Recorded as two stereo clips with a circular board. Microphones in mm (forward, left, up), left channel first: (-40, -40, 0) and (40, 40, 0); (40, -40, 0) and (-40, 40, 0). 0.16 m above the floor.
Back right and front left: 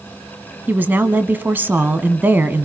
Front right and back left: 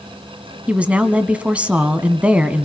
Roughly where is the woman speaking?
Left.